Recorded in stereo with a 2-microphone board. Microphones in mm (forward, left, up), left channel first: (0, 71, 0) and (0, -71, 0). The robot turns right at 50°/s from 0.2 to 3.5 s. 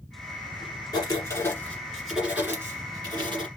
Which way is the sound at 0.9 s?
125° left.